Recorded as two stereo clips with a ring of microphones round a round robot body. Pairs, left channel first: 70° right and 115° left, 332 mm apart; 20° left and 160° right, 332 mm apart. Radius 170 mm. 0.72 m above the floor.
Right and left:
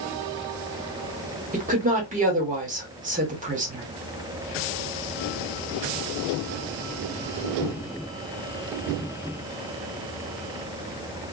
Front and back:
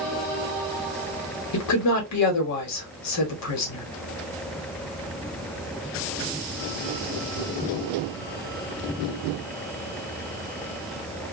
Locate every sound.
1.5 s a woman speaking: 50° left, 1.4 m